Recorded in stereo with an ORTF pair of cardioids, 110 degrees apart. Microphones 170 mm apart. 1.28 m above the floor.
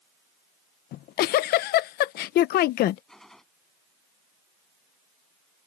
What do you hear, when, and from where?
0.9 s a giggle: 65° left
3.1 s a gunshot: straight ahead